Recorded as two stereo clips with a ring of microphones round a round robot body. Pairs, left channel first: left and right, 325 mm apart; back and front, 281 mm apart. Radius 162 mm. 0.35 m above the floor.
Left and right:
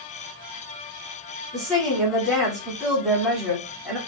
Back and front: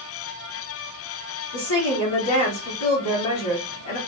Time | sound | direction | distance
1.5 | a woman speaking | straight behind | 2.5 m